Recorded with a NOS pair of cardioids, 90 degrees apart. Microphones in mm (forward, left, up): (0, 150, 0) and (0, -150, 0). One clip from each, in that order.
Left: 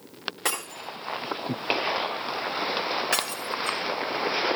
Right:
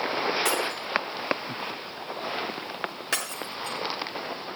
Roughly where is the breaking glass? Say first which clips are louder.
Right 4 dB; ahead.